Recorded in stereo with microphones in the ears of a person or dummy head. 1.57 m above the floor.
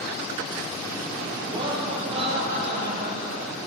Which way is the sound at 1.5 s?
25° right (ahead or behind).